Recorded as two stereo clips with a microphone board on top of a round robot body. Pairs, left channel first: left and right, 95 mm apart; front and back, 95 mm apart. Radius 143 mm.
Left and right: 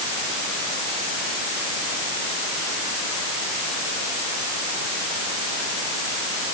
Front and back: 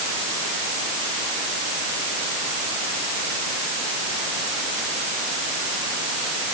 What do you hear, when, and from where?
Only background noise.